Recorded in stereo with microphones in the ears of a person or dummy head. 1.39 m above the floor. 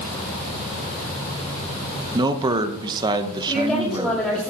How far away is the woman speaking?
About 7.5 m.